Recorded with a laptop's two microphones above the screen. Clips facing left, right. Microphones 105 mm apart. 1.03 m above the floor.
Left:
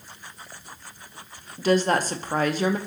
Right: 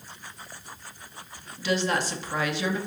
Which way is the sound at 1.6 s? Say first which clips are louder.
Left 5 dB; 45° left (ahead or behind).